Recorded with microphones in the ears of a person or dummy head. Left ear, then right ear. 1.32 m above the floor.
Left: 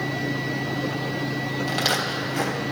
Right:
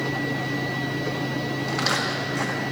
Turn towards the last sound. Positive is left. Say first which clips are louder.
# left 1 dB
turn(degrees=65)  # may be behind; listen again after turning